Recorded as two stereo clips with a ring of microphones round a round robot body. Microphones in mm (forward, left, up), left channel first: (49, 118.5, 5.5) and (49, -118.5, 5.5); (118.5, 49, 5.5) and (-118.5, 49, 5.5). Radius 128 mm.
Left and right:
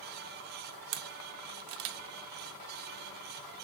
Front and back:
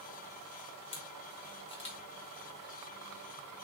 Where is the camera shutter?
70° right, 0.5 m.